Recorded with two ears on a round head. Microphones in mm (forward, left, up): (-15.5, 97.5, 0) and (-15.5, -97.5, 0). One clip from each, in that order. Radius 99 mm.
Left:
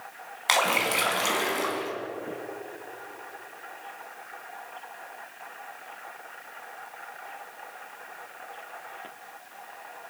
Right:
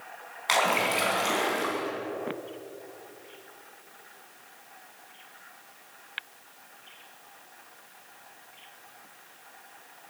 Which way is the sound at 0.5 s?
25° left (ahead or behind).